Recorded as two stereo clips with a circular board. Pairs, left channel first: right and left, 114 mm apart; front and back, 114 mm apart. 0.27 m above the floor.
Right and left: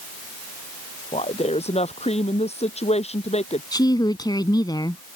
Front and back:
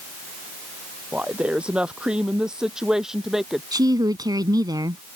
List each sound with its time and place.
1.1 s a woman speaking: 100° right; by 3.6 s 95° right
3.7 s a woman speaking: 135° right